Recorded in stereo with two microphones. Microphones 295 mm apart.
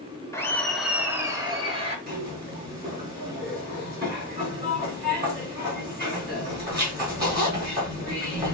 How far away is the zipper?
About 3.5 m.